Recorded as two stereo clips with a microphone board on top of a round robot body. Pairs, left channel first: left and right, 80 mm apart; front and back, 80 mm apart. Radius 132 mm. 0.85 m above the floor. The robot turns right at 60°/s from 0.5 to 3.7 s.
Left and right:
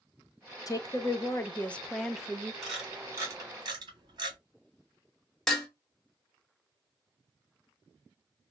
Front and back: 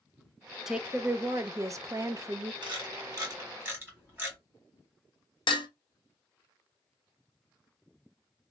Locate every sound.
0.7 s a woman speaking: 95° left, 0.7 m; by 2.5 s 150° right, 0.7 m
2.6 s a camera shutter: straight behind, 1.9 m; by 4.4 s 115° right, 1.9 m
5.5 s dishes clattering: 5° left, 0.9 m